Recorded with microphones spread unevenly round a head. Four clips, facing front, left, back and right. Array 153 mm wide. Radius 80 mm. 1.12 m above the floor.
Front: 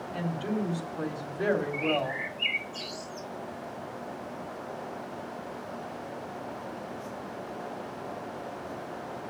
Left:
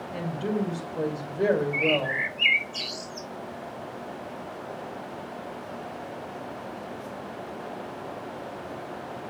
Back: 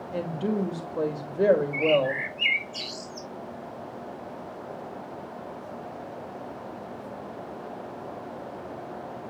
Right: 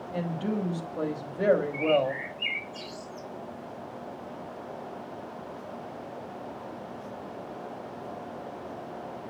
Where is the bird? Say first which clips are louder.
Right 1 dB, back 6 dB; 105° left, 1.2 m.